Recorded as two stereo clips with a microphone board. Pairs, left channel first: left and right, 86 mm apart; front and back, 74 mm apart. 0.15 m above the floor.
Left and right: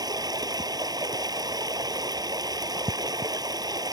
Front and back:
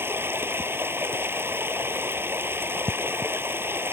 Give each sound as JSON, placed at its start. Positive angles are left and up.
{"t": 0.0, "sound": "running water", "azimuth_deg": -125}